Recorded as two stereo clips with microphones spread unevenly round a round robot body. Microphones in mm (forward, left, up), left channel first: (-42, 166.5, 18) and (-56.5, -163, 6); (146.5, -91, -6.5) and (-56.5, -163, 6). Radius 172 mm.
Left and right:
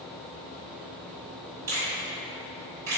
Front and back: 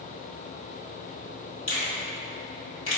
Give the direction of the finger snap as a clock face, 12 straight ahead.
12 o'clock.